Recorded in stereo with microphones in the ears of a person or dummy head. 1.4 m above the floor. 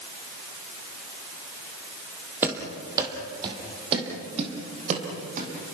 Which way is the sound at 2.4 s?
15° right (ahead or behind).